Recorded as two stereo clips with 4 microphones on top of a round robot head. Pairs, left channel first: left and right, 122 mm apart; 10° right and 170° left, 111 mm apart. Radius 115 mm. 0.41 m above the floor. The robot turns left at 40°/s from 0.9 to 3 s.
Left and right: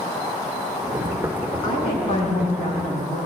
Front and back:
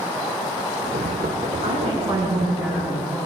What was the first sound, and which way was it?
A woman speaking, 140° left.